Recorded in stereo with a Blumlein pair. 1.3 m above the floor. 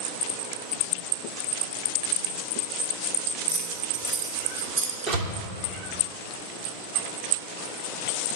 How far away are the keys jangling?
About 2.5 m.